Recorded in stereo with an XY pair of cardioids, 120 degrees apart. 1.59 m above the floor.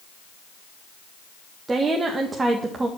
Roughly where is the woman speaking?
Ahead right.